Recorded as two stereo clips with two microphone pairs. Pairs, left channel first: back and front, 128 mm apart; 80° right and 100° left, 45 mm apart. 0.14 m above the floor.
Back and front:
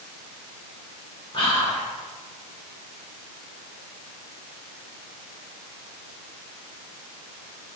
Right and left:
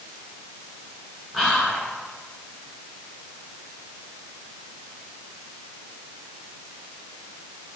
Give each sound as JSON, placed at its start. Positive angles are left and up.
{"t": 1.3, "sound": "whispering", "azimuth_deg": -170, "distance_m": 1.4}